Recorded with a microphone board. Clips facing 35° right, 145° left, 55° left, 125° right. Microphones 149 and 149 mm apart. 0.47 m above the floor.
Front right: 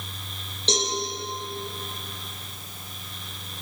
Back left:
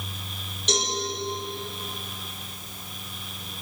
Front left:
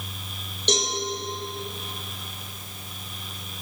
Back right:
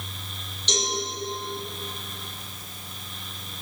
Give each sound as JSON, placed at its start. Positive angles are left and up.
{"t": 0.7, "sound": "a cowbell", "azimuth_deg": 25, "distance_m": 7.5}